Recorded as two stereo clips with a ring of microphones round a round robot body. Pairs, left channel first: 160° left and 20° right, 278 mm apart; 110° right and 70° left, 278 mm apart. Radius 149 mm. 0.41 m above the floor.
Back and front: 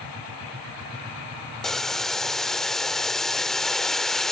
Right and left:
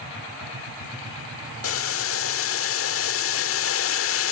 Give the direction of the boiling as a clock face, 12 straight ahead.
4 o'clock.